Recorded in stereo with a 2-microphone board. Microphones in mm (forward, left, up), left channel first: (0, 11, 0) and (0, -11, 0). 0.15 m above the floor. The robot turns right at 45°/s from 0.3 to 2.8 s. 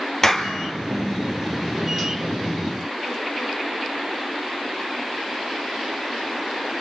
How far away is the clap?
About 2.5 m.